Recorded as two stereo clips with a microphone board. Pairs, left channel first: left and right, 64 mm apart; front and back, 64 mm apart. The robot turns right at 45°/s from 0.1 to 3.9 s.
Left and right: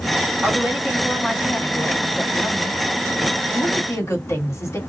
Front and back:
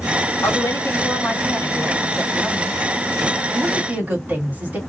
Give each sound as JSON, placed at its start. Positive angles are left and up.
{"t": 0.4, "sound": "a woman speaking", "azimuth_deg": -35, "distance_m": 1.4}